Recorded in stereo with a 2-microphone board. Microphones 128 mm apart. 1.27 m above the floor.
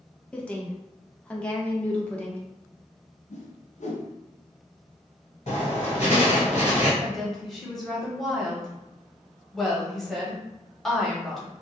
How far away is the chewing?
No chewing in this recording.